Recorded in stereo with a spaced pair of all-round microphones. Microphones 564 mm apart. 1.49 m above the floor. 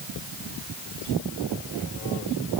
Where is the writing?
I don't hear writing.